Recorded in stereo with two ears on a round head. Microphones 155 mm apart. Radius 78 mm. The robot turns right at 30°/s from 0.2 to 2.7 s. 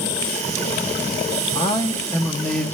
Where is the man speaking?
150° left, 0.8 m; by 2.6 s straight behind, 0.8 m.